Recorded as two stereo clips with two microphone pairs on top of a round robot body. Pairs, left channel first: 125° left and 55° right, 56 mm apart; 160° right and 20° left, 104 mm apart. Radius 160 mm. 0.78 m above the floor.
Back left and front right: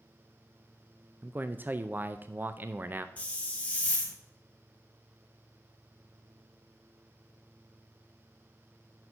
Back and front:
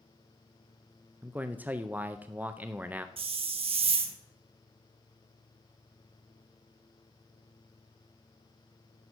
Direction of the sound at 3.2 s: 55° left.